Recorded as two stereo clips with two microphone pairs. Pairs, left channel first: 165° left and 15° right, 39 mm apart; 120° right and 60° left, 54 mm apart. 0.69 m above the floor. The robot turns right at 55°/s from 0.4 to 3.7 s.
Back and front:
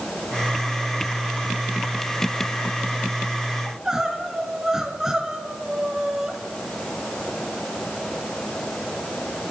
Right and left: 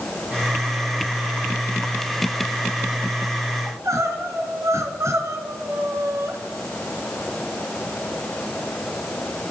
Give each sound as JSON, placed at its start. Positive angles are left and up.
{"t": 3.6, "sound": "crying", "azimuth_deg": 60, "distance_m": 1.7}